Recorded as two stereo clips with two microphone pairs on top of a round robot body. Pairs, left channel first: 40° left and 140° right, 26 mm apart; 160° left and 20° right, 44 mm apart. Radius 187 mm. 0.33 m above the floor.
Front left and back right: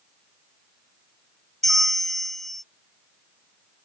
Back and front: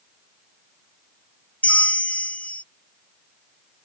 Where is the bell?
130° left.